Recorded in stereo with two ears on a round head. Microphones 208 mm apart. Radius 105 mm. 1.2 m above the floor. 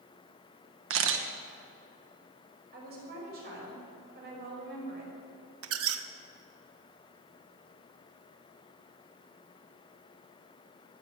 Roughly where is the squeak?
Right.